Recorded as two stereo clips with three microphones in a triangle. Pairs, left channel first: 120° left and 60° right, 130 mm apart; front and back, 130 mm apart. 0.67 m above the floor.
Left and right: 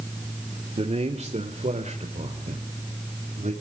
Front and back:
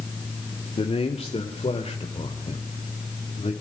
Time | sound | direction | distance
0.8 | a man speaking | 35° right | 1.8 m